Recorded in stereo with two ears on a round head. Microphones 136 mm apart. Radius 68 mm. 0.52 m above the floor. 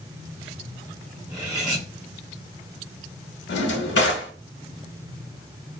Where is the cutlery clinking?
25° right (ahead or behind), 1.4 m.